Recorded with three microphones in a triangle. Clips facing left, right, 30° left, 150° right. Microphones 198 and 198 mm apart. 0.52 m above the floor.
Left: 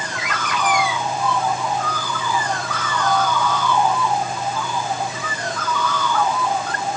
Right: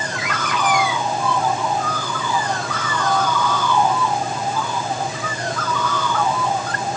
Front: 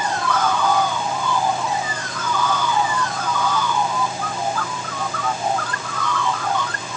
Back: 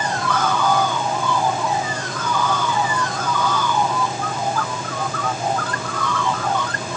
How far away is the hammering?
I don't hear hammering.